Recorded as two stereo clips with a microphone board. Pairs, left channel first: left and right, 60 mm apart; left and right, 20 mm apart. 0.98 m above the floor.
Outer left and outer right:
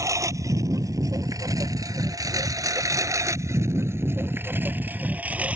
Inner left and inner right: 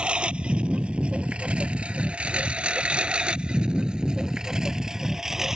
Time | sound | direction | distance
0.0 | a lawn mower | 60° right (ahead or behind) | ?